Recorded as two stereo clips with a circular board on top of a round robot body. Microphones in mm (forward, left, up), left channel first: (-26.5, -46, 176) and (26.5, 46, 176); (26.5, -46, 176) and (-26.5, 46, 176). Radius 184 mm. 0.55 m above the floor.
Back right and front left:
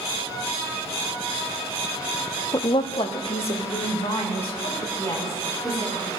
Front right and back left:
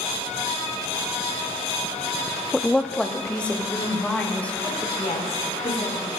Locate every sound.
2.5 s a woman speaking: 150° right, 0.8 m; by 4.8 s 135° right, 4 m
5.0 s a woman speaking: 65° right, 3.5 m